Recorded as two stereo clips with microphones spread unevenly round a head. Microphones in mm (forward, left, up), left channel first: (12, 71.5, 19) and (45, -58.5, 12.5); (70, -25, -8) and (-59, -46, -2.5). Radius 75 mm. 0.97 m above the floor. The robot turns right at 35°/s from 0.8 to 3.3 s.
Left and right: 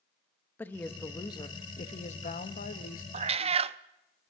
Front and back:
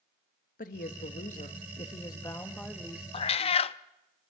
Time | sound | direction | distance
0.6 | a woman speaking | 30° left | 1.3 m
3.1 | a cat meowing | 40° right | 0.5 m